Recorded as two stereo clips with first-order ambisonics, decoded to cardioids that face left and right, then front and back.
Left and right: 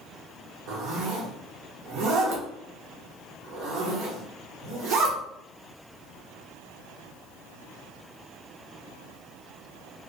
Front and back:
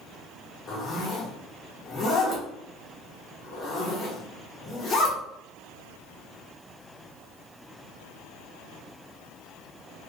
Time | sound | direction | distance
0.7 | a zipper | 65° right | 0.7 m